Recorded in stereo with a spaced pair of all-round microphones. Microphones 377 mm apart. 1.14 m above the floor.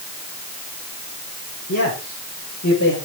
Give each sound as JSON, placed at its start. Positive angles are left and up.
{"t": 1.7, "sound": "a man speaking", "side_deg": 35, "distance_m": 6.5}